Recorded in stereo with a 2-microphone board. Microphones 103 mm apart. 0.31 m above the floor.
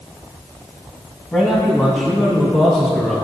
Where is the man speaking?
15° left (ahead or behind), 1.9 m.